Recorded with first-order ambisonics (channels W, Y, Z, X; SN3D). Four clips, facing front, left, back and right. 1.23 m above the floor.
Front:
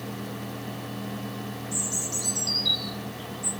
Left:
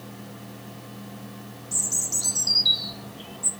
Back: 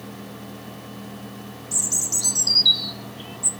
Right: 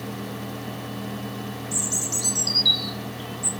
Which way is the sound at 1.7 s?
175° right.